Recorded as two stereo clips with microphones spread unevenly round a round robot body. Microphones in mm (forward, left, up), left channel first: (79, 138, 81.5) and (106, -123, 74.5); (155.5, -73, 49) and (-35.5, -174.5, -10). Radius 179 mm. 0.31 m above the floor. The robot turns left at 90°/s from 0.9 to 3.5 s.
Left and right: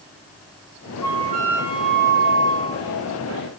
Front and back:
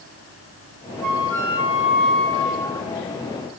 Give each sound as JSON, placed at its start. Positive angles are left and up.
{"t": 1.0, "sound": "a flute", "azimuth_deg": 160, "distance_m": 1.0}